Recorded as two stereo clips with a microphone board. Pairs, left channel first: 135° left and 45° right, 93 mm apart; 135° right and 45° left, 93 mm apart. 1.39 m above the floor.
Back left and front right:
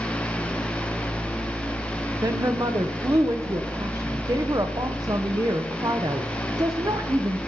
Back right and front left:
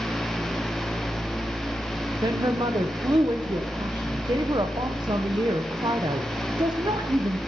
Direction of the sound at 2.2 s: 5° left.